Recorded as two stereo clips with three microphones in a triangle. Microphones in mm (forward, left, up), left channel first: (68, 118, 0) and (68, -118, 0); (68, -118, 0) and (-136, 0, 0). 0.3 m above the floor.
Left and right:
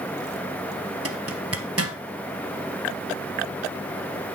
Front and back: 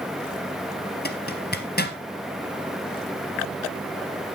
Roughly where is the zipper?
Right.